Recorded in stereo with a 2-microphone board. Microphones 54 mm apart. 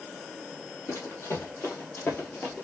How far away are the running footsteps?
About 2.5 m.